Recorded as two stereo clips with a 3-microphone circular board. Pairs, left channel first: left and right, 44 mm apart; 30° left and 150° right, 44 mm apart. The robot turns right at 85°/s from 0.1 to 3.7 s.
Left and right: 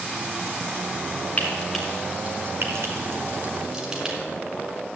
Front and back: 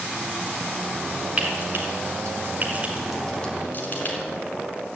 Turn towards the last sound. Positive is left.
turn(degrees=-15)